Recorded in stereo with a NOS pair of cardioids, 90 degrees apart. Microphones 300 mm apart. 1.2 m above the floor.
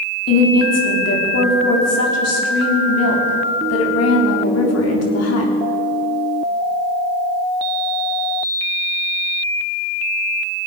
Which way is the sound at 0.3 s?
55° left.